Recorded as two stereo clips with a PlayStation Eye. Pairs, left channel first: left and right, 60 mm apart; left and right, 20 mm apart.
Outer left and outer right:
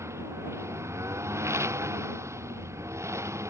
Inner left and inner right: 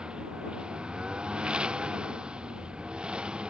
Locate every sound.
0.0 s a lawn mower: 50° right (ahead or behind)